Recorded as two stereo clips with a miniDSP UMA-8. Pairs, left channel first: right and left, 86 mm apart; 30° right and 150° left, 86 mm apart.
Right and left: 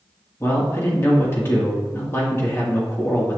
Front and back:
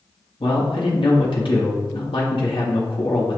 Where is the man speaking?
30° right, 1.6 m.